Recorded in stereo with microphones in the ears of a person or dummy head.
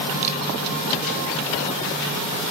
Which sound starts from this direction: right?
A camera shutter, at 0.2 s.